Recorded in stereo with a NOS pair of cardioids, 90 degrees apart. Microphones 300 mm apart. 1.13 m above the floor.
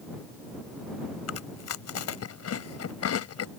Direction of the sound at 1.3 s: 55° left.